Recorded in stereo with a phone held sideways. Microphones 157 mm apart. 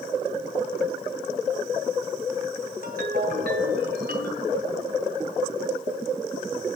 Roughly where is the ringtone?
Right.